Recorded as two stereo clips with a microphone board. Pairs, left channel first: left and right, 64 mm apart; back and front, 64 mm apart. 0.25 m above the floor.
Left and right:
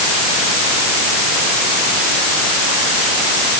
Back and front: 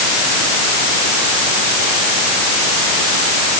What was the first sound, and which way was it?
Only background noise.